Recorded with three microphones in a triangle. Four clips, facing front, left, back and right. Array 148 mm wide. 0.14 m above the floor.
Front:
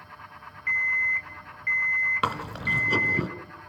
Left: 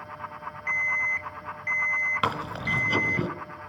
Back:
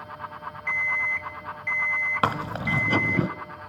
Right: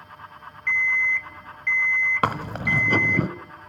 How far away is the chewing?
About 1.0 m.